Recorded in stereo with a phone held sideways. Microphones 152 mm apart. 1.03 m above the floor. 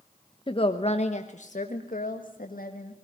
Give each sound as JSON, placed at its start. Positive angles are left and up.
{"t": 0.5, "sound": "a woman speaking", "side_deg": 35, "distance_m": 1.1}